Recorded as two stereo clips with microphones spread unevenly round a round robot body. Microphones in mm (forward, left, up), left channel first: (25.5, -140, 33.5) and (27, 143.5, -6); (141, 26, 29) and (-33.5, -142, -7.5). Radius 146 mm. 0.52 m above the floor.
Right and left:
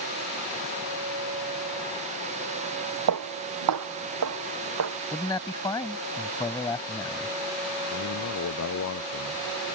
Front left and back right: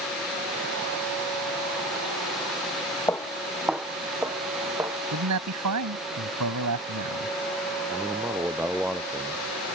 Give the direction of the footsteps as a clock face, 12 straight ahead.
8 o'clock.